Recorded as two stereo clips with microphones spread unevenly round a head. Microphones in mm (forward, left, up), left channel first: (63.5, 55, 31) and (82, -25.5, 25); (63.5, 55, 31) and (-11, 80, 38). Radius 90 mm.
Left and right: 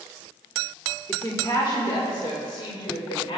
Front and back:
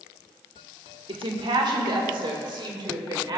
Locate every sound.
1.1 s a woman speaking: 165° left, 1.2 m; by 3.4 s 130° left, 2 m